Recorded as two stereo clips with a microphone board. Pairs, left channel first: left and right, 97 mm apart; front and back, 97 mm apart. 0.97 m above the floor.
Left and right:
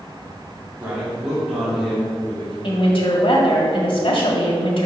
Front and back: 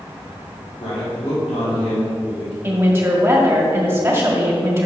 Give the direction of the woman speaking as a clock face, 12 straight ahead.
8 o'clock.